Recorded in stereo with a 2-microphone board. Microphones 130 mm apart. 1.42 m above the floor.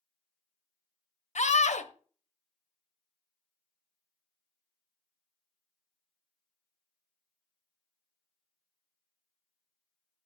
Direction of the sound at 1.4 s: 60° left (ahead or behind).